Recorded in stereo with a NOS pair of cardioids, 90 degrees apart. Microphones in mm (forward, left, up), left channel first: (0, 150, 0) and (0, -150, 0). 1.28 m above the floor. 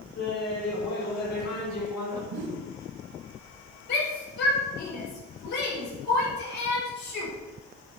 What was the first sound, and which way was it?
Laughter, 60° left.